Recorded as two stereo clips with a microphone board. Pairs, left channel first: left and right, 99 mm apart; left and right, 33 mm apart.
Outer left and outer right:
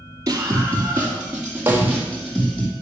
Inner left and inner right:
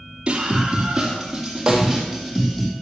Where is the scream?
30° right (ahead or behind), 2 m; by 2.7 s 10° left (ahead or behind), 4 m.